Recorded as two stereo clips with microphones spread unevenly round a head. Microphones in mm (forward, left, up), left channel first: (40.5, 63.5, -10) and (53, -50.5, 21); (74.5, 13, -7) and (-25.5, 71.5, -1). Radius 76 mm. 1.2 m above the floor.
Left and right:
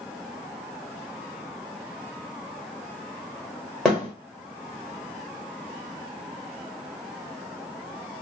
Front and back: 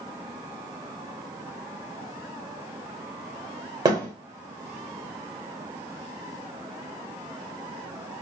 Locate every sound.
3.9 s a thud: 165° right, 1.2 m